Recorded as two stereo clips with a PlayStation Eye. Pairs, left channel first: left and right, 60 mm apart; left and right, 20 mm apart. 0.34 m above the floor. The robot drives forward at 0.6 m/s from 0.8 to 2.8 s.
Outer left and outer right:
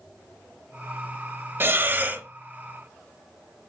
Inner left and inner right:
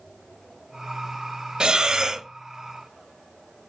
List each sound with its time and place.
1.6 s breathing: 40° right (ahead or behind), 0.6 m; by 2.3 s 25° right (ahead or behind), 0.9 m